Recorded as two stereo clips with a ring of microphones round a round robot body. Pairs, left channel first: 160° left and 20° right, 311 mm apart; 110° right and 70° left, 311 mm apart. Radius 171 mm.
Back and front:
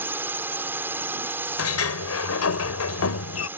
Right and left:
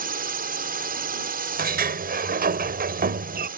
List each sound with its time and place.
0.0 s a drone: 55° left
1.6 s a sliding door: 125° left